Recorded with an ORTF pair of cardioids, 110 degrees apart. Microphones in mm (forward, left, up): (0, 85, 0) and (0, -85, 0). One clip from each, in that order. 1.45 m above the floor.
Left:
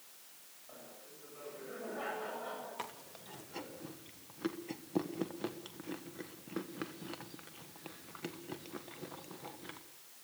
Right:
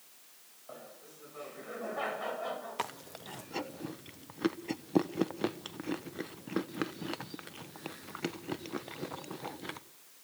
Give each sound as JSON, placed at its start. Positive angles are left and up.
{"t": 0.7, "sound": "laughter", "azimuth_deg": -55, "distance_m": 8.0}
{"t": 2.8, "sound": "chewing", "azimuth_deg": -45, "distance_m": 1.3}